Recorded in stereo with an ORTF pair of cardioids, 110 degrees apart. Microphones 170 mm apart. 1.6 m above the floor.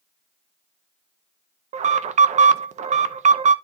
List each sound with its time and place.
1.7 s an alarm: 45° right, 1.3 m